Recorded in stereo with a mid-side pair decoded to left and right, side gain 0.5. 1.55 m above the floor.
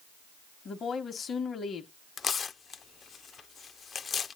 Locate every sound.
0.7 s a woman speaking: 45° left, 1.3 m
2.2 s tearing paper: 40° left, 0.6 m